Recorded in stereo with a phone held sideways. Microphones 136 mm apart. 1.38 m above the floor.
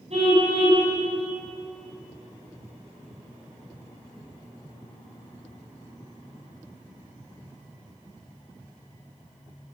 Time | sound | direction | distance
0.1 | a car horn | 50° right (ahead or behind) | 6 m